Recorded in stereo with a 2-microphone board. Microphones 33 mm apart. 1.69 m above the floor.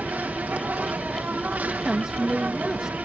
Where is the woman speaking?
25° right (ahead or behind).